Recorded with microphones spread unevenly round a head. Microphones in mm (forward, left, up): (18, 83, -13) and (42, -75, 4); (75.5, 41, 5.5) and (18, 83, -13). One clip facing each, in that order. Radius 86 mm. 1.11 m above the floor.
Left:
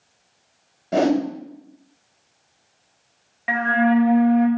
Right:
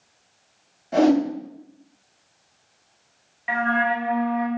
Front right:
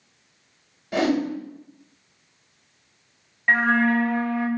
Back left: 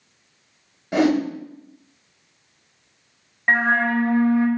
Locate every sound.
0.9 s a whoosh: 75° left, 1.4 m
3.5 s a flute: 105° left, 0.7 m